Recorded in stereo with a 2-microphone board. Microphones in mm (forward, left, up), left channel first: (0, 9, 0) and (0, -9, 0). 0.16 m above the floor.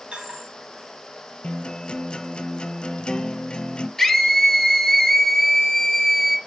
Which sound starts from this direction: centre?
A scream, at 4.0 s.